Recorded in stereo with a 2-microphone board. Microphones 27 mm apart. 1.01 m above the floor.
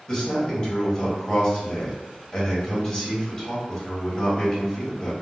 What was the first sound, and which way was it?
A man speaking, 30° left (ahead or behind).